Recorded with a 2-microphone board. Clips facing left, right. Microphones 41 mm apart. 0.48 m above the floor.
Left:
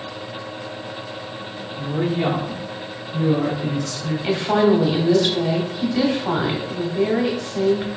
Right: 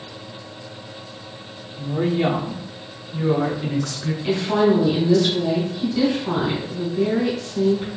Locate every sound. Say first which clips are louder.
1.8 s a woman speaking: right 1 dB; 20° left (ahead or behind), 0.8 m; by 4.1 s 50° right (ahead or behind), 1.7 m
4.2 s a woman speaking: left 1 dB; 45° left (ahead or behind), 1.1 m